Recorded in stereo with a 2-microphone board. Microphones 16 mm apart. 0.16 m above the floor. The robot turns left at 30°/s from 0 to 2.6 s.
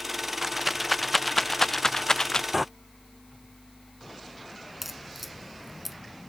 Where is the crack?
10° right (ahead or behind).